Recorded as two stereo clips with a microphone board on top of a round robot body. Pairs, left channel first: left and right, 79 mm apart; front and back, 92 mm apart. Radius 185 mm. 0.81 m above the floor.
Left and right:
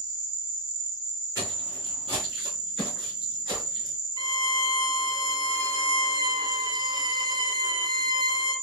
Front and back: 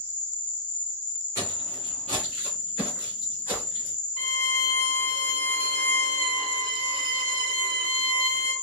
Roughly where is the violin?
Right.